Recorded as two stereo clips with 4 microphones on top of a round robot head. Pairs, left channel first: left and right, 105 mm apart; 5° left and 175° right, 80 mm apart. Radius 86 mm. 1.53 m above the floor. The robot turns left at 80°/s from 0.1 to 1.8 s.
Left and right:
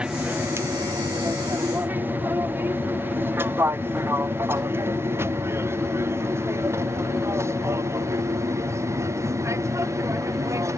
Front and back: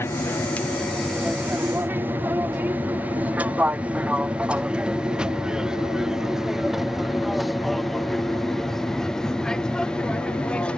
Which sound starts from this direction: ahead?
An aircraft, at 0.0 s.